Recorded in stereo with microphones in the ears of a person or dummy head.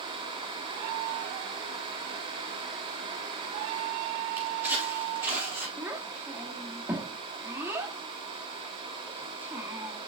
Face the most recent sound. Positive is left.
turn(degrees=-15)  # may be behind; listen again after turning